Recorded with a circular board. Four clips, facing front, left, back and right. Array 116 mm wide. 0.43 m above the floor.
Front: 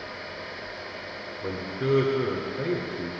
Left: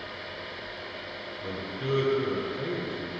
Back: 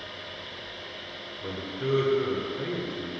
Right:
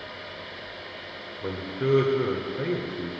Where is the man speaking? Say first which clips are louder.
Right 7 dB, front 3 dB; 60° right, 1.0 m.